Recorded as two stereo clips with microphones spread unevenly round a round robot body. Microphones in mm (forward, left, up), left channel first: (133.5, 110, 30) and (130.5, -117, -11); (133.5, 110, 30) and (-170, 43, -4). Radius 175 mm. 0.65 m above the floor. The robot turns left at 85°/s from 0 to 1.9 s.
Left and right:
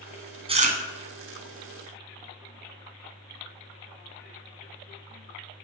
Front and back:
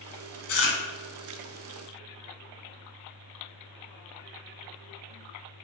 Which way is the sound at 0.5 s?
20° right.